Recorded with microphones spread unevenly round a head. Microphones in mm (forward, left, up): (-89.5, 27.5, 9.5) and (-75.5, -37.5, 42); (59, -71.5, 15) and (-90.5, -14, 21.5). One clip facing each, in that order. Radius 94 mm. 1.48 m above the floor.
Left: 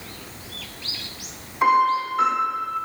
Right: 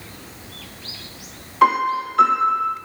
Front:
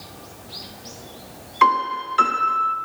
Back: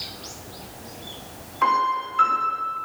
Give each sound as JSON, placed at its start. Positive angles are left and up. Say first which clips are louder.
{"t": 1.6, "sound": "a piano", "louder": "right 1 dB, front 3 dB", "azimuth_deg": -15, "distance_m": 2.0}